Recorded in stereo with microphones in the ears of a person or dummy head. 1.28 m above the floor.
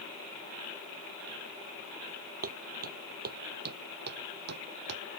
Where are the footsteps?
35° right (ahead or behind); by 5.0 s 50° right (ahead or behind).